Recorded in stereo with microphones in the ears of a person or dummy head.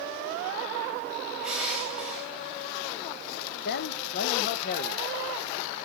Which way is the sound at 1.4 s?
Centre (ahead or behind).